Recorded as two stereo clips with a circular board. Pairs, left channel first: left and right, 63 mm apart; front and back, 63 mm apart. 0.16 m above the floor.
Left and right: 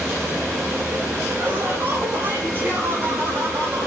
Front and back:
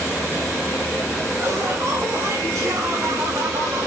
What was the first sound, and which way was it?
Laughter, 150° right.